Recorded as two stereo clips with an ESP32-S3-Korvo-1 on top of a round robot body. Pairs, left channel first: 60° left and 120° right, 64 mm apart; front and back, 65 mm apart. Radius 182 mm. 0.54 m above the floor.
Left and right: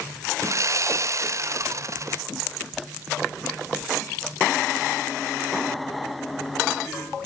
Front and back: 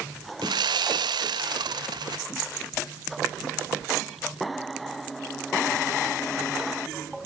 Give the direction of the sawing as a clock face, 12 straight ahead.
6 o'clock.